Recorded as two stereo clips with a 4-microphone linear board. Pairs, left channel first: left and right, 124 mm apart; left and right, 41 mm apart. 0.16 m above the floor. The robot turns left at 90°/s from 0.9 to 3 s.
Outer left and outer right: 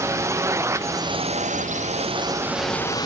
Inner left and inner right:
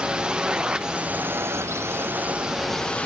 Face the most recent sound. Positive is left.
turn(degrees=150)